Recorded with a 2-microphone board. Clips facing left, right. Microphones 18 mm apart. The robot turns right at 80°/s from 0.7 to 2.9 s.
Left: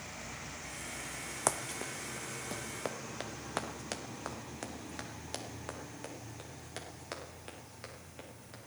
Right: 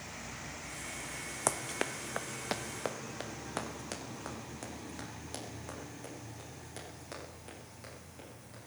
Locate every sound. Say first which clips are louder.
1.5 s running footsteps: right 1 dB; 10° left (ahead or behind), 0.5 m; by 8.6 s 20° left (ahead or behind), 5 m